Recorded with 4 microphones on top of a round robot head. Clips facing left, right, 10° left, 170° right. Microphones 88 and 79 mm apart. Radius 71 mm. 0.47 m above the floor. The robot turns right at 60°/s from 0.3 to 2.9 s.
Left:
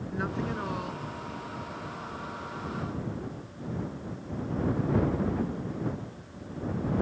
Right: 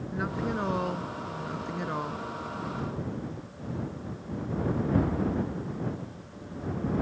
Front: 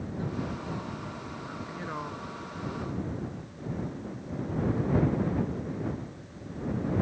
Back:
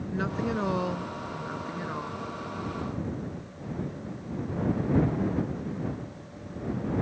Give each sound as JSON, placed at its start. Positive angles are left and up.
{"t": 0.1, "sound": "a woman speaking", "azimuth_deg": -175}